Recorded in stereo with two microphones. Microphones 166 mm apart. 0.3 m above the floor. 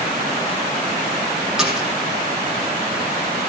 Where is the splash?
5° right (ahead or behind), 4.5 m.